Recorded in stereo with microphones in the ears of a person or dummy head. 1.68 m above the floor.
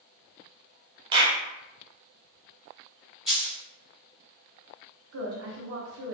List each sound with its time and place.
1.1 s a clap: 25° right (ahead or behind), 0.9 m
3.3 s a dropped coin: centre (ahead or behind), 1.9 m
5.1 s a woman speaking: 65° right (ahead or behind), 0.7 m